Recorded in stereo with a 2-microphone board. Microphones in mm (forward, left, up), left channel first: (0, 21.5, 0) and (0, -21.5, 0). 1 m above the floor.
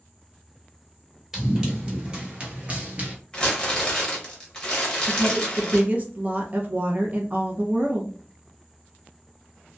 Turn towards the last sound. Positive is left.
turn(degrees=-35)  # may be behind; listen again after turning